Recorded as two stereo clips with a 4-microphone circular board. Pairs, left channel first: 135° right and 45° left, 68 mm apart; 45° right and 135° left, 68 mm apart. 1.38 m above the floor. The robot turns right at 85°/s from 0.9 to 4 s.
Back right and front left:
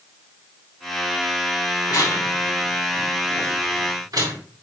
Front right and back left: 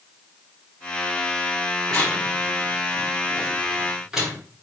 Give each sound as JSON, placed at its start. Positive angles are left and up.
{"t": 1.9, "sound": "tearing paper", "azimuth_deg": -125, "distance_m": 4.0}